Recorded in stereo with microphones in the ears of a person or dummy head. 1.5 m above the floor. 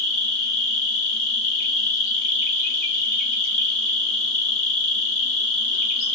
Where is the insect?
50° left (ahead or behind), 2 m.